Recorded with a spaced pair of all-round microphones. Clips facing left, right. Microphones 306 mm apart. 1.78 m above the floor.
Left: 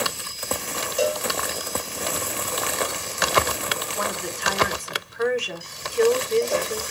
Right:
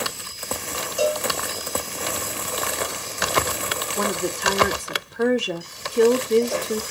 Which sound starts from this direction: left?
A cowbell, at 1.0 s.